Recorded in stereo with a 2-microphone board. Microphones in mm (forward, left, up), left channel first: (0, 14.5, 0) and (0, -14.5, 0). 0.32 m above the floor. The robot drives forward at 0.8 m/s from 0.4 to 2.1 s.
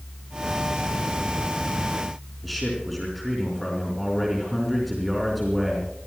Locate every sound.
2.4 s a man speaking: centre (ahead or behind), 4.5 m